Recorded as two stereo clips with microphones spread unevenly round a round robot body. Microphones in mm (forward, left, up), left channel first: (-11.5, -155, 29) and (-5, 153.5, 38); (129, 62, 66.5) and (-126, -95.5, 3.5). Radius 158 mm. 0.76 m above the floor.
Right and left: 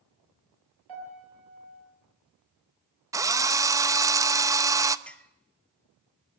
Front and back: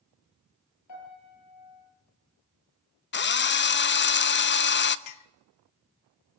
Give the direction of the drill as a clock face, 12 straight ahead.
11 o'clock.